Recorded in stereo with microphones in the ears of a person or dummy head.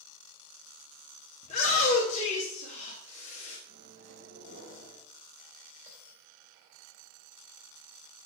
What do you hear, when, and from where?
1.4 s a shout: 40° left (ahead or behind), 1.3 m
3.7 s a microwave: 40° right (ahead or behind), 2 m
5.9 s a bell: 10° right (ahead or behind), 4 m